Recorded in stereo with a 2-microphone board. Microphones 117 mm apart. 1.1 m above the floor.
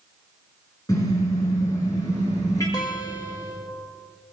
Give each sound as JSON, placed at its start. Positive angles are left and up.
{"t": 0.9, "sound": "a car horn", "side_deg": 30, "distance_m": 7.0}
{"t": 2.7, "sound": "a guitar", "side_deg": 35, "distance_m": 1.5}